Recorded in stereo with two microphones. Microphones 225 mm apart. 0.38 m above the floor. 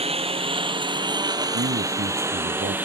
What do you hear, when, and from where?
0.0 s a lawn mower: 25° right (ahead or behind); by 2.9 s 10° right (ahead or behind)
1.5 s a man speaking: 65° right (ahead or behind)